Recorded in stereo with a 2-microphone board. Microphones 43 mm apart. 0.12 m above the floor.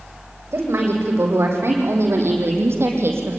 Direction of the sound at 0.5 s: 70° right (ahead or behind).